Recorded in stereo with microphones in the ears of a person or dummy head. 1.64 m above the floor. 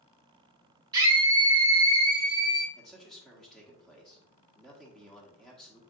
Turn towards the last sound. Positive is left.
turn(degrees=0)  # may be behind; listen again after turning